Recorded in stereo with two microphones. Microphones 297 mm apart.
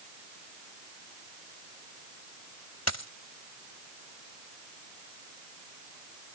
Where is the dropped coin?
55° left (ahead or behind).